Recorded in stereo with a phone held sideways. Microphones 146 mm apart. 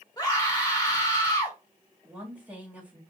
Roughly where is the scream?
Left.